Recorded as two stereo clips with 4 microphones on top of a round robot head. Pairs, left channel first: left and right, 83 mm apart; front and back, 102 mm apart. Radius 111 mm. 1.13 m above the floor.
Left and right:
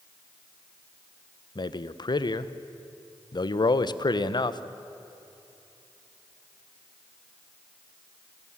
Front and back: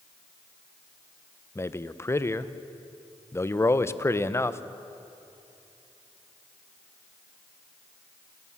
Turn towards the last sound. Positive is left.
turn(degrees=65)